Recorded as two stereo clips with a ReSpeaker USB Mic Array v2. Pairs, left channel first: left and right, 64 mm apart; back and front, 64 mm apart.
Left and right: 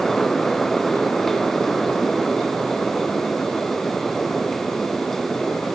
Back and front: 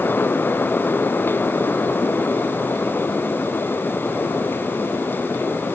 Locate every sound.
Only background noise.